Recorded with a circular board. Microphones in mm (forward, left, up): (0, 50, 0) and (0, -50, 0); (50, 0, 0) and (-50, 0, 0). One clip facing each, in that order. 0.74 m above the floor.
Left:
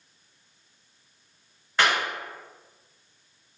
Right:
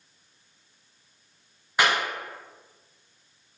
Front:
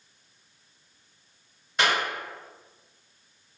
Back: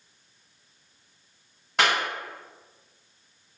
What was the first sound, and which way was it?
A clap, 165° right.